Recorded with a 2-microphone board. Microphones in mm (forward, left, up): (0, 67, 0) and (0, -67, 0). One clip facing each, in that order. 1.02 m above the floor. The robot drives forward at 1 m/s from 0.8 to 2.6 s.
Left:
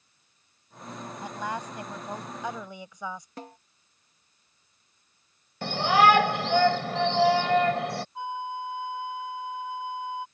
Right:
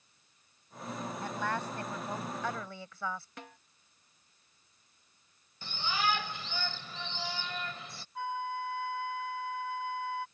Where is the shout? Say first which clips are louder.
Left 14 dB; 75° left (ahead or behind).